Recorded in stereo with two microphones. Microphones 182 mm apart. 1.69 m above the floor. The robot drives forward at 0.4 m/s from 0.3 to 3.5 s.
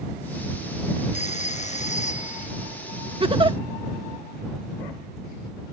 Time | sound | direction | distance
1.1 | a phone ringing | 40° left (ahead or behind) | ?
3.2 | a giggle | 30° right (ahead or behind) | ?